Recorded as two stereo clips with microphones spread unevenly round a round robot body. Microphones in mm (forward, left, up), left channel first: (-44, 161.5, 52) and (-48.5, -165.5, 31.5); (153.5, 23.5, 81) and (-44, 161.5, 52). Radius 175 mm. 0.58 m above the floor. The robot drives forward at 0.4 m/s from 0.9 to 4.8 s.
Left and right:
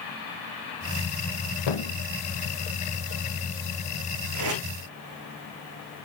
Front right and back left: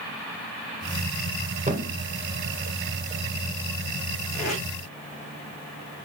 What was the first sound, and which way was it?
A thud, 85° left.